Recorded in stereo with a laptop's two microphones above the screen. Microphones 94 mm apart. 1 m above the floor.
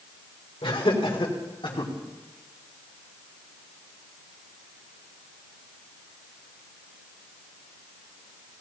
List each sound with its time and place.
0.6 s laughter: 75° left (ahead or behind), 3 m; by 1.9 s 60° left (ahead or behind), 2 m